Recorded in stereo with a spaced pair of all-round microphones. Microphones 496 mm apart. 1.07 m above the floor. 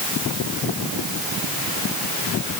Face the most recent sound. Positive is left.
No sound to turn to.